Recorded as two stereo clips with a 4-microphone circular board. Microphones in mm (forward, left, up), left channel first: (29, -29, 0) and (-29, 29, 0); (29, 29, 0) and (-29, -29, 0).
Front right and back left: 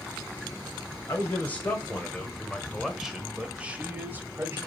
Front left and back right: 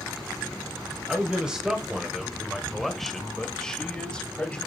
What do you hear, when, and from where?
1.1 s a man speaking: 70° right, 1.7 m; by 4.6 s 110° left, 1.7 m